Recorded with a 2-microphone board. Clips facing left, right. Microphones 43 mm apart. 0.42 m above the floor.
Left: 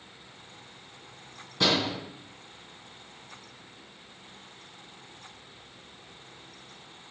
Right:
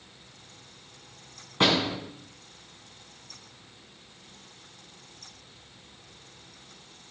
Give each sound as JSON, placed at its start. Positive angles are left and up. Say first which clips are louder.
{"t": 1.6, "sound": "a door slam", "louder": "right 2 dB", "side_deg": -40, "distance_m": 3.0}